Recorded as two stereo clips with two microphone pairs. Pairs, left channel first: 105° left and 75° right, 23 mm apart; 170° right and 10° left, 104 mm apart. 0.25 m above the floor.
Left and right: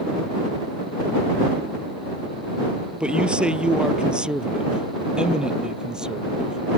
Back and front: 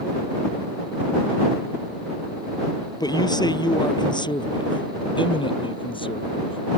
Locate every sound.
3.0 s a man speaking: 120° right; by 6.6 s 135° right